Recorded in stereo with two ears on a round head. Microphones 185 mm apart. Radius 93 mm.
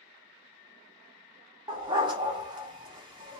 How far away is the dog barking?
About 0.7 m.